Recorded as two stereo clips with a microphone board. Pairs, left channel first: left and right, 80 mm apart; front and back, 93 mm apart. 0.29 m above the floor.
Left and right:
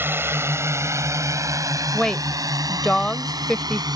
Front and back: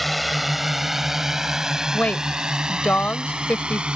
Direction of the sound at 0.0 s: 90° right.